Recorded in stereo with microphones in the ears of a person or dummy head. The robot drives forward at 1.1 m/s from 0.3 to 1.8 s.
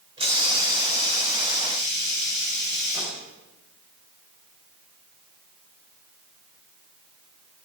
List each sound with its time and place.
0.2 s a hiss: 25° right (ahead or behind), 3.5 m; by 3.2 s 15° right (ahead or behind), 5 m